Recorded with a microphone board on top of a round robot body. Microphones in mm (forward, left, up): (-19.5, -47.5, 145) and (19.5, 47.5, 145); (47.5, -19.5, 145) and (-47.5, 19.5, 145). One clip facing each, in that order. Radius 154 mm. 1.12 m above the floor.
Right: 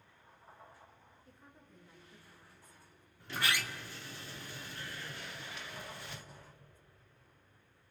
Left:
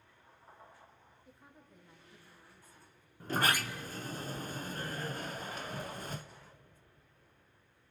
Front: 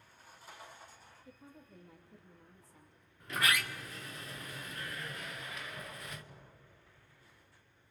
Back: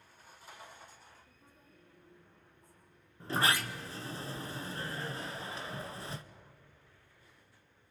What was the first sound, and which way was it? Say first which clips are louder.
A woman speaking: left 2 dB, front 7 dB; 15° right.